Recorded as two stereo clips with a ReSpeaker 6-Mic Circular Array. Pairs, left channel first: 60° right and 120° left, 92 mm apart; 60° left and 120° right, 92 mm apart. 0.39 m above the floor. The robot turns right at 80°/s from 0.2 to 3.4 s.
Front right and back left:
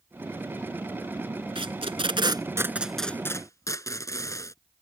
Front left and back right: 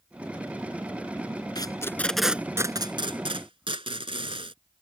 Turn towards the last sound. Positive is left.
turn(degrees=-115)